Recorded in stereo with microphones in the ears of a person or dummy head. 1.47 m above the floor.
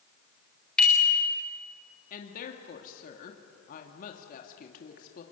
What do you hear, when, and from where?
0.8 s a bicycle bell: 5° left (ahead or behind), 4 m
2.1 s a woman speaking: 50° left (ahead or behind), 2 m